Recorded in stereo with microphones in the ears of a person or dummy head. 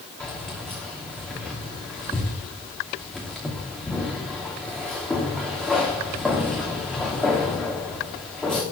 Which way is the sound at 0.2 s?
5° left (ahead or behind).